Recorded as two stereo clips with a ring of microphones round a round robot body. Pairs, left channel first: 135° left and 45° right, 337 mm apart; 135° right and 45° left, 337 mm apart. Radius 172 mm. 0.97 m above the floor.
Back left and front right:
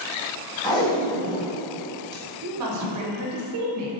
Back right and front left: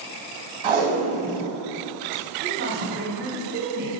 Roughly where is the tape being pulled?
Ahead left.